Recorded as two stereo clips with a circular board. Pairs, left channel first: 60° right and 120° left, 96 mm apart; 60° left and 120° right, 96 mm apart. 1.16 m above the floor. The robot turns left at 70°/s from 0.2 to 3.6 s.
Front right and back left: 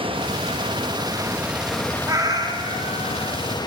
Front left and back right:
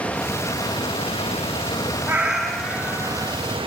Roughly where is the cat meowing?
Behind.